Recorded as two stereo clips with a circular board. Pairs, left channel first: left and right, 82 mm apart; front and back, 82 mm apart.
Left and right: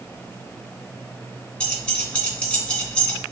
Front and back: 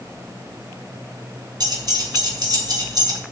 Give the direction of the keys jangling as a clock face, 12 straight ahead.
6 o'clock.